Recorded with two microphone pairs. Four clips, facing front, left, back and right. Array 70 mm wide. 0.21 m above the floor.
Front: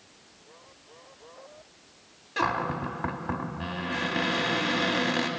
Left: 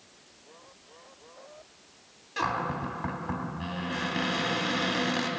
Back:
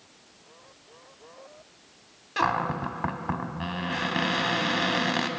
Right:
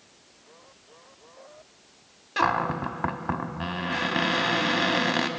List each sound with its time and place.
2.4 s a cupboard door: 110° right, 0.6 m